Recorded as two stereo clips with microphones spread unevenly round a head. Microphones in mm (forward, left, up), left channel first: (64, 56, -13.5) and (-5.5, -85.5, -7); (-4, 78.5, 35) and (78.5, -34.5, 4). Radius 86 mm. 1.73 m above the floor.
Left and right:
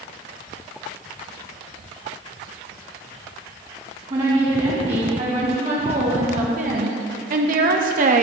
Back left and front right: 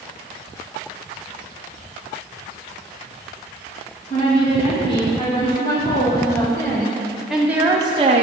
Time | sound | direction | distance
4.1 | a woman speaking | 175° right | 2.5 m